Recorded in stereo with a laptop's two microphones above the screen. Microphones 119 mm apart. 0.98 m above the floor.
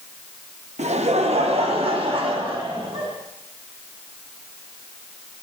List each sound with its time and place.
0.8 s laughter: 70° right (ahead or behind), 0.7 m; by 3.1 s 45° right (ahead or behind), 1.7 m